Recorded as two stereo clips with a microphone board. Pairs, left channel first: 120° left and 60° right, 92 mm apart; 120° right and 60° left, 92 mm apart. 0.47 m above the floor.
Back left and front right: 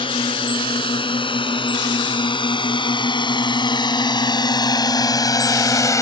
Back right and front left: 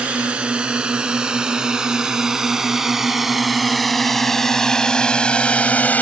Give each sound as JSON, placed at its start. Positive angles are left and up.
{"t": 0.0, "sound": "a drone", "azimuth_deg": 140}